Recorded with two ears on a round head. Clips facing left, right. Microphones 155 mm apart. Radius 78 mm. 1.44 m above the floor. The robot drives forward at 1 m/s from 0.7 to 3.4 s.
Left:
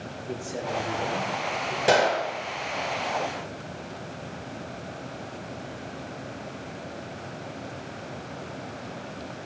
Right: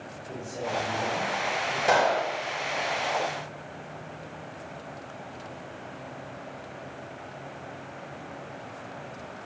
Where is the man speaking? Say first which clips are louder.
Left 1 dB; 75° left (ahead or behind), 5 m; by 1.8 s 90° left, 4.5 m.